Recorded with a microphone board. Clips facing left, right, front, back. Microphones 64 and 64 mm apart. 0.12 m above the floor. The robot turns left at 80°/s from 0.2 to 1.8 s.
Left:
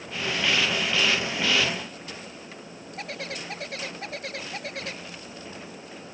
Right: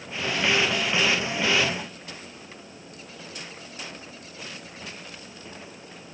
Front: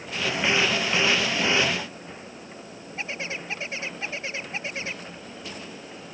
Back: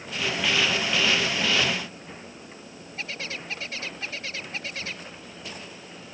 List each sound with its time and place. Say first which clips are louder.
3.0 s a bird: left 8 dB, front 2 dB; 70° left